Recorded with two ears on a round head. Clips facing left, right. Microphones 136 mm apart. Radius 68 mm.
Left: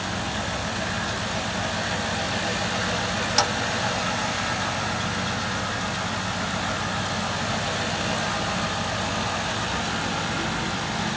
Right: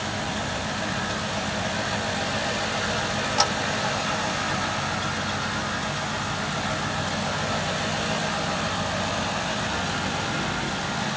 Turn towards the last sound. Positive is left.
No sound to turn to.